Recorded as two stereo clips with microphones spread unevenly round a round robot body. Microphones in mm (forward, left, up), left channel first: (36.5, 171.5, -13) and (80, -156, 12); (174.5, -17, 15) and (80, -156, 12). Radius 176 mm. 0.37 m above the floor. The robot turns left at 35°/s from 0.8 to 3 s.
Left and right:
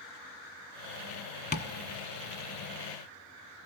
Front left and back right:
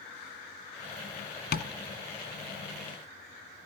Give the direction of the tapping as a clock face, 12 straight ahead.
11 o'clock.